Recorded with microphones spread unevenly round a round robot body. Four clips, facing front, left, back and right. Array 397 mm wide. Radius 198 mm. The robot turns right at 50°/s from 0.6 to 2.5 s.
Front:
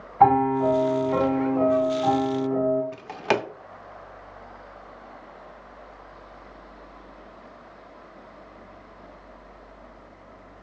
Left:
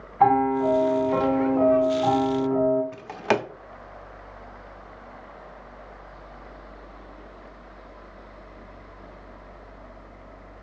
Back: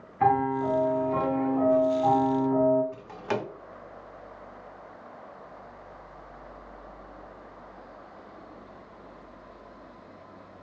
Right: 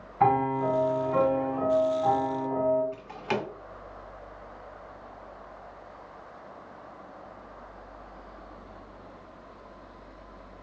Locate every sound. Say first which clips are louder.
0.2 s a piano: left 4 dB, front 6 dB; 15° left, 2 m; by 2.8 s 110° left, 2 m
2.9 s a drawer: left 7 dB, front 6 dB; 40° left, 0.6 m